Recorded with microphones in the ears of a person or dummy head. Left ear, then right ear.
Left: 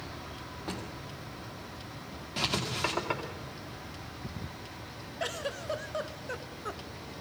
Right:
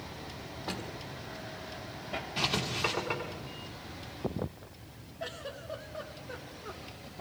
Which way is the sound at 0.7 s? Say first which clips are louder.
Right 1 dB; centre (ahead or behind).